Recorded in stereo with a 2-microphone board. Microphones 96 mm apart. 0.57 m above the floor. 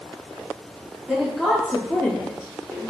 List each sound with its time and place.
1.1 s a woman speaking: 5° right (ahead or behind), 1.0 m; by 2.9 s 35° left (ahead or behind), 1.5 m